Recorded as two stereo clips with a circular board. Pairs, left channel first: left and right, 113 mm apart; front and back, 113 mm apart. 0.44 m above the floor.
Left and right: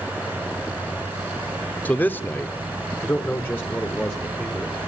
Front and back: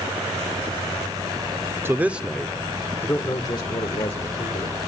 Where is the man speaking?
145° left, 0.8 m; by 4.8 s 15° left, 1.5 m.